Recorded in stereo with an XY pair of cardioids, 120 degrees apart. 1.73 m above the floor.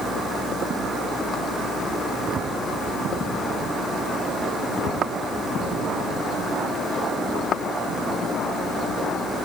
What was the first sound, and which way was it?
Only background noise.